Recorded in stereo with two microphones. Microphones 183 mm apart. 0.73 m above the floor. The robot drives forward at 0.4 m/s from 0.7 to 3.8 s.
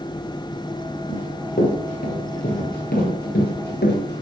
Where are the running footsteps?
45° left (ahead or behind), 9.5 m; by 4.2 s 65° left (ahead or behind), 8.5 m.